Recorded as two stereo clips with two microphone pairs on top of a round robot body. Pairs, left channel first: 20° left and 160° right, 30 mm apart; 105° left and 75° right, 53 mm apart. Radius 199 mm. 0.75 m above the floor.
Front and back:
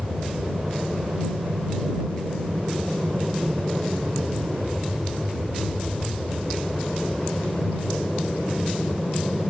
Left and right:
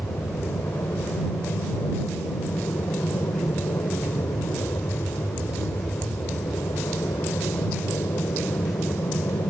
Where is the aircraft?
135° left; by 9.5 s 100° left.